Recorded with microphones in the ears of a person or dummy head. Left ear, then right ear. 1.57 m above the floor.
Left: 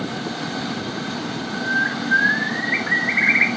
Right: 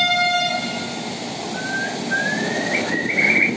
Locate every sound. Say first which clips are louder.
1.5 s a bird: left 4 dB; 30° left (ahead or behind), 2.5 m